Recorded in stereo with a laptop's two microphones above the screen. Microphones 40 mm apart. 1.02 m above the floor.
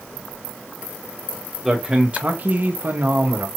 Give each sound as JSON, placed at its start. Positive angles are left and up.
{"t": 1.6, "sound": "a man speaking", "side_deg": -15, "distance_m": 1.2}